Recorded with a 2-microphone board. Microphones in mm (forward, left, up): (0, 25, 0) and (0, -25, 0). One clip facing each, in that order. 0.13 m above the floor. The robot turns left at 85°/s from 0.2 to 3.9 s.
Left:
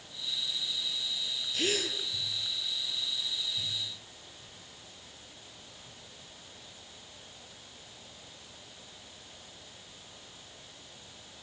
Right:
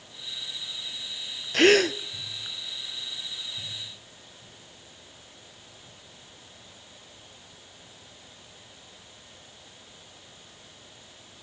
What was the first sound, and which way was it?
A gasp, 80° right.